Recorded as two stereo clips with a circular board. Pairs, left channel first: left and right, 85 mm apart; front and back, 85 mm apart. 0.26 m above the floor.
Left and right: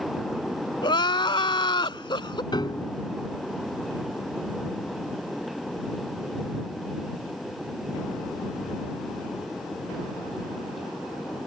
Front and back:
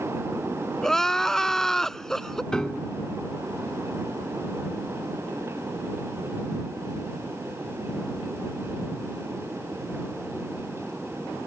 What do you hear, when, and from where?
0.8 s crying: 85° left
2.5 s a piano: 80° left